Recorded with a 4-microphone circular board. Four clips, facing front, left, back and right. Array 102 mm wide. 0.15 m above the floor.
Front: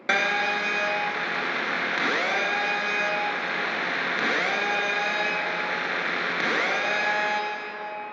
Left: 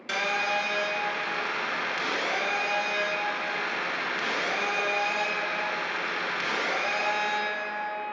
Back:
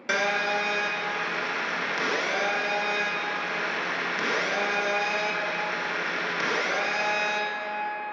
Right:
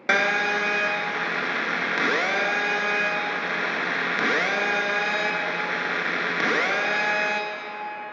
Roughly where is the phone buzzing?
Right.